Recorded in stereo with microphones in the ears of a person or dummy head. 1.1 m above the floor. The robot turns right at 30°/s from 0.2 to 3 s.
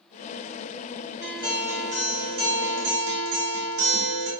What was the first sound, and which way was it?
A guitar, 165° right.